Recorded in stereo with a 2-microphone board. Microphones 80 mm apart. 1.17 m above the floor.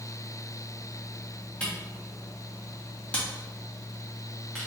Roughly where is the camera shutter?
Centre.